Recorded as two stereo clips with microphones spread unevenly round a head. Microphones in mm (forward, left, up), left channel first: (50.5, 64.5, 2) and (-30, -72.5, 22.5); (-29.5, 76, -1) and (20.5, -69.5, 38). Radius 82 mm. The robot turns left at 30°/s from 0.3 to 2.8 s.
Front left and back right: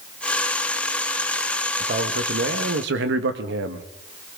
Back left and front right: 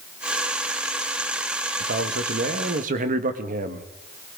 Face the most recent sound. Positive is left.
turn(degrees=-115)